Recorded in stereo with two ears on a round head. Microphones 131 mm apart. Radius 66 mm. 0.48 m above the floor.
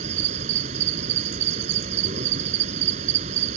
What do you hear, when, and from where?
0.0 s an insect: 50° right (ahead or behind)